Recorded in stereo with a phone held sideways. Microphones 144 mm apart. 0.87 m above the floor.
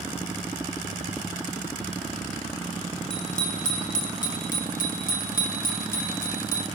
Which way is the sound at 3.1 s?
55° left (ahead or behind).